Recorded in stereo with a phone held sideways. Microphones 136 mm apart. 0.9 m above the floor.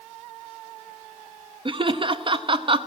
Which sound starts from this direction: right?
Laughter, at 1.6 s.